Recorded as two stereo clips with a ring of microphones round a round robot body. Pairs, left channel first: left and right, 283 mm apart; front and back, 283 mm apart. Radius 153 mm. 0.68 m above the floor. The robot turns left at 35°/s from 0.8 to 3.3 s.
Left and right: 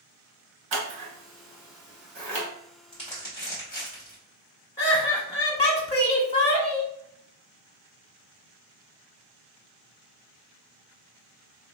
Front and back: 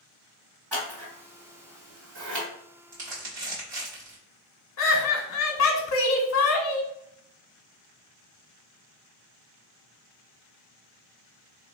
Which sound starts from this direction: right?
Scissors, at 0.7 s.